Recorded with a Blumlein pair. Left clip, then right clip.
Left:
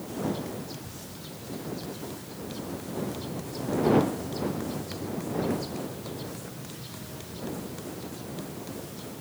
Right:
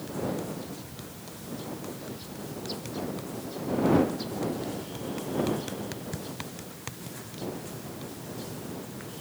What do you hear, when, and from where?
Only background noise.